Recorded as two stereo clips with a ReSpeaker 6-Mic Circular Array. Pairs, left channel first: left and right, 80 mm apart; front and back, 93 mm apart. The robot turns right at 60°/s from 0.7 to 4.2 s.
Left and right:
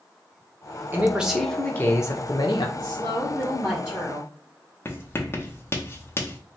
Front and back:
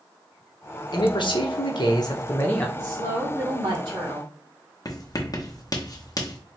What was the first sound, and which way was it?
A man speaking, 30° right.